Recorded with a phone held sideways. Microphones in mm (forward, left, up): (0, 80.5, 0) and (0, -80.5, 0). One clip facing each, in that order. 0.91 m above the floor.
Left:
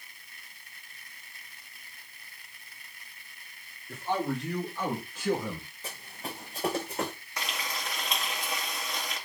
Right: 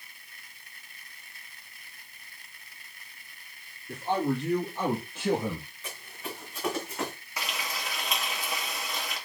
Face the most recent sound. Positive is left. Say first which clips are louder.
# right 1 dB
turn(degrees=-5)  # may be behind; listen again after turning